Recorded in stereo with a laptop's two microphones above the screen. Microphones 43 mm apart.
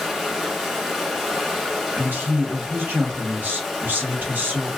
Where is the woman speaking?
50° right (ahead or behind), 1.0 m.